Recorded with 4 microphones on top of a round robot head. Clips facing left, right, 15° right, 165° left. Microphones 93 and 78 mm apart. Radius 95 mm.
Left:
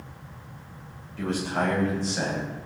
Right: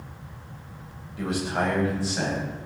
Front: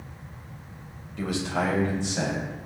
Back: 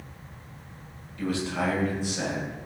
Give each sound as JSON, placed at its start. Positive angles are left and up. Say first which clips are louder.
{"t": 1.2, "sound": "a man speaking", "louder": "even, front 1 dB", "azimuth_deg": -10, "distance_m": 4.0}